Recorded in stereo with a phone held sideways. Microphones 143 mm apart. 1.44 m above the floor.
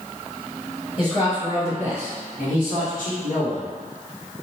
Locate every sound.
1.0 s a man speaking: 40° left (ahead or behind), 1.8 m; by 3.7 s 80° left, 1.4 m